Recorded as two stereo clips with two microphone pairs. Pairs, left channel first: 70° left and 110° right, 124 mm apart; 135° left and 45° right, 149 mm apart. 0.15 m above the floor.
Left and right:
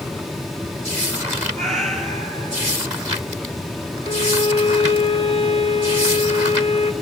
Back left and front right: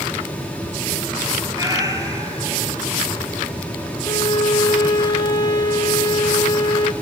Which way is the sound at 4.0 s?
75° left.